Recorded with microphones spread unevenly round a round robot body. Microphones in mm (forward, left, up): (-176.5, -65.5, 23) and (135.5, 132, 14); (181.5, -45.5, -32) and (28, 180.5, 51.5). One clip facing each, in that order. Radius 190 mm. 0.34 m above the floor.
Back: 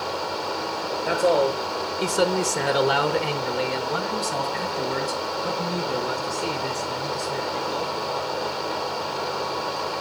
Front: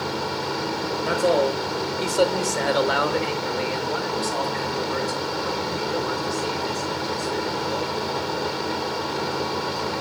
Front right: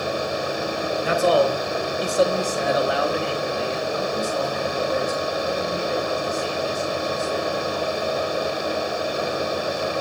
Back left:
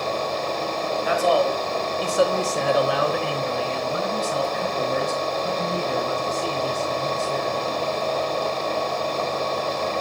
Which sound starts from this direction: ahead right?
A man speaking, at 1.1 s.